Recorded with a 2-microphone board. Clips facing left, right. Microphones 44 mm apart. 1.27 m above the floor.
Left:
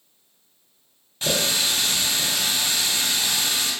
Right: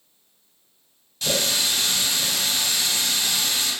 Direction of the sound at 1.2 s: 25° left (ahead or behind).